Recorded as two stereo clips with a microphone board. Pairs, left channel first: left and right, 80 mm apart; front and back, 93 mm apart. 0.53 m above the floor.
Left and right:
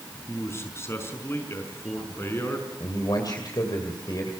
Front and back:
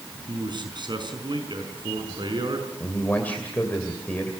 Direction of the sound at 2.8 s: 70° left.